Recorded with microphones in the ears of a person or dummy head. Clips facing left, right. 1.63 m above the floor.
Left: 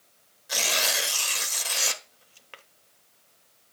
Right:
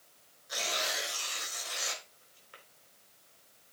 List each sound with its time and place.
0.5 s tearing paper: 65° left (ahead or behind), 0.9 m